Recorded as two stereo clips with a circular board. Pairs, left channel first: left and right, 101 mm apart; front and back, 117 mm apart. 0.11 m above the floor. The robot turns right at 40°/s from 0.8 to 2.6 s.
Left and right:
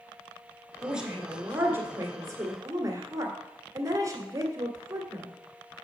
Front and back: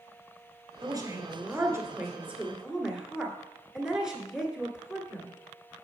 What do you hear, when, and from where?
0.8 s a woman speaking: 170° right, 1.7 m; by 5.3 s 100° right, 1.7 m